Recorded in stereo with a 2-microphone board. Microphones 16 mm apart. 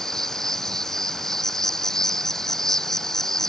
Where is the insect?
30° left (ahead or behind).